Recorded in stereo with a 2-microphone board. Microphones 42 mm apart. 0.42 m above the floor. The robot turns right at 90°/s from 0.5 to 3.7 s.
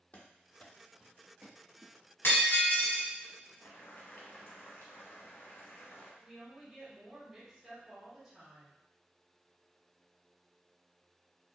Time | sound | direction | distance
0.1 | running footsteps | 40° left (ahead or behind) | 0.7 m
2.2 | breaking glass | 100° left | 1.2 m
3.6 | boiling | 75° left (ahead or behind) | 0.8 m
6.2 | a woman speaking | 10° right (ahead or behind) | 0.9 m